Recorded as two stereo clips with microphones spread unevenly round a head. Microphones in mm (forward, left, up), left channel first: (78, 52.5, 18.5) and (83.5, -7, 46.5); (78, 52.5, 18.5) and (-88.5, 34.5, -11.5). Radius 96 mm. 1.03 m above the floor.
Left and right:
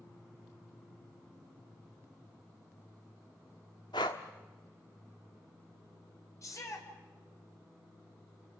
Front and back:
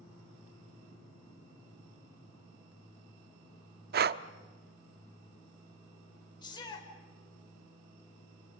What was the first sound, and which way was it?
Breathing, 160° left.